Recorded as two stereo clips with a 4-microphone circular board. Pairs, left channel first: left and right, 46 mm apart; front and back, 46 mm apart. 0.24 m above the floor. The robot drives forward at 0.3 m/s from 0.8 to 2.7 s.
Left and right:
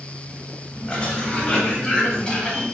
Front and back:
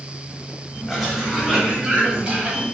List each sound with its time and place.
0.9 s a cough: 100° left, 1.2 m; by 2.6 s 145° left, 1.3 m